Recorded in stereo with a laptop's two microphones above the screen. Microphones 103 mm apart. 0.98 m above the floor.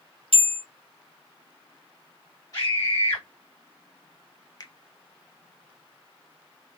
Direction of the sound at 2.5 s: 35° left (ahead or behind).